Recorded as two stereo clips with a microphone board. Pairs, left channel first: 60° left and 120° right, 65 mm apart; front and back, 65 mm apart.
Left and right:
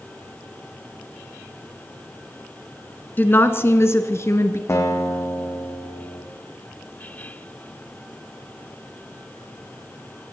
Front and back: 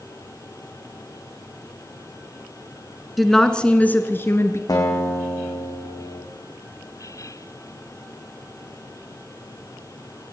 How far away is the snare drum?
No snare drum in this recording.